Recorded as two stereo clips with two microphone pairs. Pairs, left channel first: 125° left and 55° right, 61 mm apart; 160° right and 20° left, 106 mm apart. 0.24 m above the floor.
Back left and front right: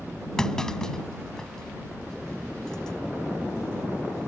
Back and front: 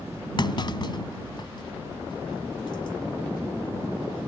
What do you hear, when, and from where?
0.4 s a clunk: 160° right